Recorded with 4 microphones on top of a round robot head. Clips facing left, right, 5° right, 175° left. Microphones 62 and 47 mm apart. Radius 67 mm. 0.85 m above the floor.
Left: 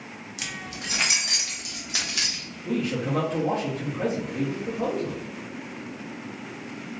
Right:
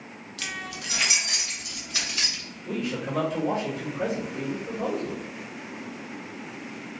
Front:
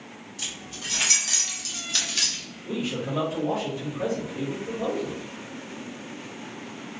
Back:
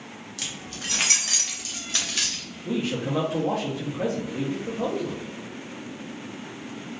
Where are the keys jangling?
165° left, 0.9 m; by 2.4 s 105° left, 1.9 m.